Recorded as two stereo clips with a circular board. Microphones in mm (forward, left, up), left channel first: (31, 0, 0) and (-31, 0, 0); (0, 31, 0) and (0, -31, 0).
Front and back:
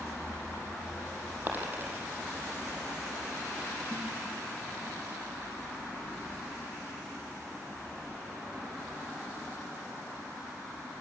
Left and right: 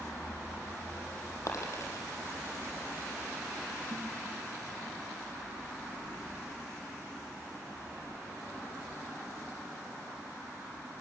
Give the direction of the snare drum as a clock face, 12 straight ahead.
4 o'clock.